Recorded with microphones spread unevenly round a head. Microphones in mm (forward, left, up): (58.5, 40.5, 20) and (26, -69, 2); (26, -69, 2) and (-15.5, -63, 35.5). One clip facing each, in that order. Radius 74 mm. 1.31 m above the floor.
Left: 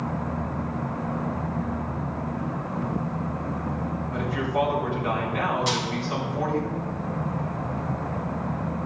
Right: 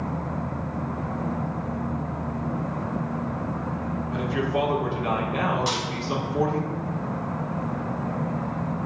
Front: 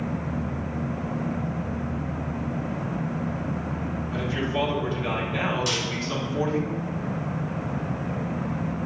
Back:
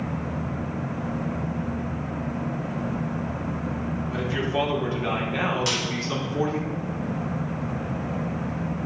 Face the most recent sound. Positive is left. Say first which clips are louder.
# left 1 dB, back 1 dB
turn(degrees=165)